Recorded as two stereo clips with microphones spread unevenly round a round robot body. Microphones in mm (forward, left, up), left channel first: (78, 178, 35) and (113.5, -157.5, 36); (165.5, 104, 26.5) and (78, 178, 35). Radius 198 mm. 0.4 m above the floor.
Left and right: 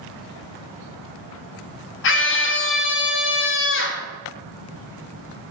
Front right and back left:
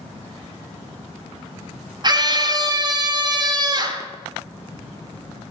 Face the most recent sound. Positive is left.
turn(degrees=115)